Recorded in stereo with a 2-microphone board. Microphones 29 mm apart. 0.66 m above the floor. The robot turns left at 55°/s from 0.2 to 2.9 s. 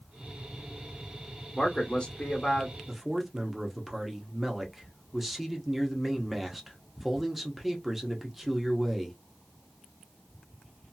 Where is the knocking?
No knocking in this recording.